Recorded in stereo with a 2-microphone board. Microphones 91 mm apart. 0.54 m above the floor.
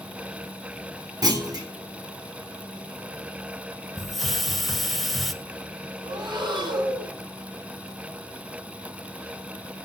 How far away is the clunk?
About 2 m.